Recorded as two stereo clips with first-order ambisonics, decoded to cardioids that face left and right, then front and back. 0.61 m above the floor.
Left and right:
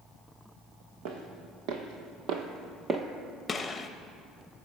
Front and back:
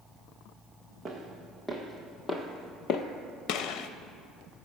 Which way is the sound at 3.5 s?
15° left.